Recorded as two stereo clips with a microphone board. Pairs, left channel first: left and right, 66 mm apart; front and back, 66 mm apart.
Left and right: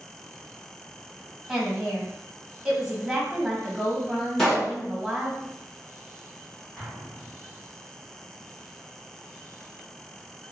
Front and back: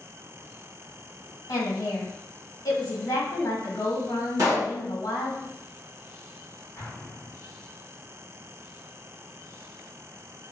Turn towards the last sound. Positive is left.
turn(degrees=15)